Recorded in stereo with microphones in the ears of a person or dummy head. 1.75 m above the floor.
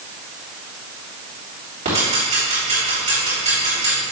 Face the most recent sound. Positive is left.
turn(degrees=-35)  # may be behind; listen again after turning